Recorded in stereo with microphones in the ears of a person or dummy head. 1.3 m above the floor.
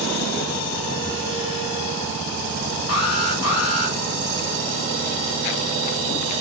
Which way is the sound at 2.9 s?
70° left (ahead or behind).